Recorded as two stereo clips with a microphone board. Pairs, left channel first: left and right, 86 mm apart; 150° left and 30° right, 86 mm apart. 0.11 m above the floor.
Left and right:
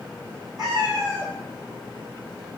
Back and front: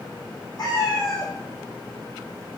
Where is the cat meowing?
175° right, 2 m.